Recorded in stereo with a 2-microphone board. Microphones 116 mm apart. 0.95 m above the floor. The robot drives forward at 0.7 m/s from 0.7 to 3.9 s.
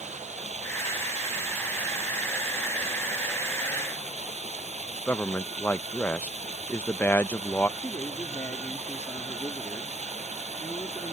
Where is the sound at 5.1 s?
20° left (ahead or behind).